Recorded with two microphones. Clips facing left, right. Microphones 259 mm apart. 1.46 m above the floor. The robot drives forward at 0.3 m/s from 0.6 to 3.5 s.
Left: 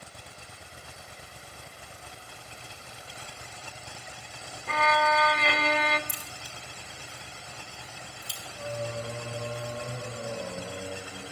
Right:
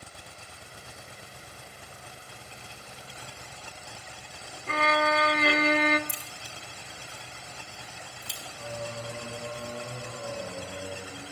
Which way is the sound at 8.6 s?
30° left (ahead or behind).